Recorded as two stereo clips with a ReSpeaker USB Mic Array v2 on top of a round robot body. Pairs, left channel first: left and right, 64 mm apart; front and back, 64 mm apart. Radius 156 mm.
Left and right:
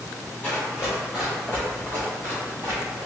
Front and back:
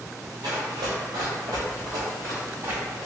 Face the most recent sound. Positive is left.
turn(degrees=-125)